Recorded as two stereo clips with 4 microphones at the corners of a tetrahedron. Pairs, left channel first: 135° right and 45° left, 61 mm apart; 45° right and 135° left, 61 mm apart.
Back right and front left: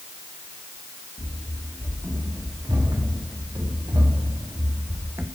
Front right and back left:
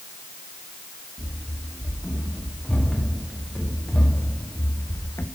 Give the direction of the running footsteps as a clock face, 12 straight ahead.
11 o'clock.